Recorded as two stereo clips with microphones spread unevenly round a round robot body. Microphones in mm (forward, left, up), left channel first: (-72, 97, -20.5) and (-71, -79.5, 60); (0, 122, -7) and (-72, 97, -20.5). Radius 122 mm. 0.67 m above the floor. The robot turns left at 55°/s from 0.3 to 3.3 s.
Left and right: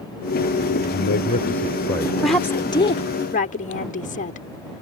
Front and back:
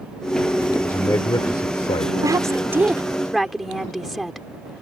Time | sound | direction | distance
0.7 | a man speaking | 90° left | ?
2.2 | a woman speaking | 170° left | ?